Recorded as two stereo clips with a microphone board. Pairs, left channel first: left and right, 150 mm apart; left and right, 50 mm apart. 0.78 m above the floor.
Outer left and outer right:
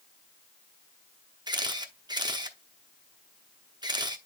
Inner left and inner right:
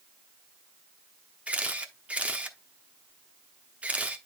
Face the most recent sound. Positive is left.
turn(degrees=-30)  # may be behind; listen again after turning